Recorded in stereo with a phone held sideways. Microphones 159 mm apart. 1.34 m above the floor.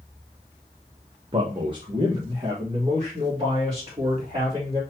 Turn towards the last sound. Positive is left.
turn(degrees=-30)  # may be behind; listen again after turning